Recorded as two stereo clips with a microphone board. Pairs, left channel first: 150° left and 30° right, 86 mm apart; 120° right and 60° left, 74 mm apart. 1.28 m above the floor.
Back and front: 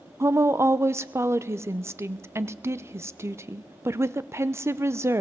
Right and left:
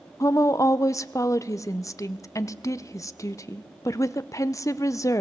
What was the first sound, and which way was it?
A woman speaking, 85° right.